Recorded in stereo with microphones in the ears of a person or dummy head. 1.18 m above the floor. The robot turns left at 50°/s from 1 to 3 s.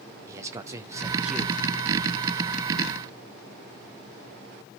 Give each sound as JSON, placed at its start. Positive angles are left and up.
{"t": 0.3, "sound": "a man speaking", "azimuth_deg": -160, "distance_m": 1.0}